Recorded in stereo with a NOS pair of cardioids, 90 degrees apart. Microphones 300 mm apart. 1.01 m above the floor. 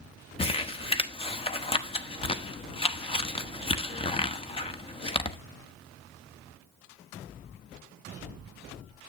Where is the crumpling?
20° left, 1.0 m.